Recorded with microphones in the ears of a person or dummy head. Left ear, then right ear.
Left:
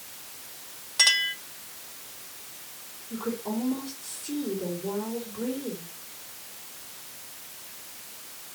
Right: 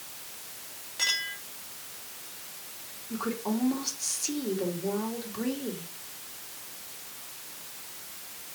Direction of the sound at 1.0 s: 35° left (ahead or behind).